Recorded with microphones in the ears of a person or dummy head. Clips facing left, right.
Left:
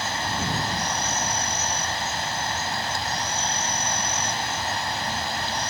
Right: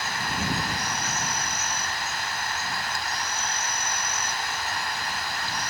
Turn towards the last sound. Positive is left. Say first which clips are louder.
# left 2 dB
turn(degrees=30)  # may be behind; listen again after turning